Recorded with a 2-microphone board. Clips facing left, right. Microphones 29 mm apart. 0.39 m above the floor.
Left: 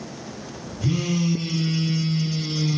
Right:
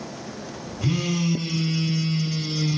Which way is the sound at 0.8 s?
40° right (ahead or behind).